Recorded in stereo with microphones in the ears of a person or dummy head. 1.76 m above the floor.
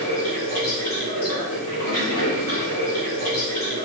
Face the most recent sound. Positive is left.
turn(degrees=45)  # may be behind; listen again after turning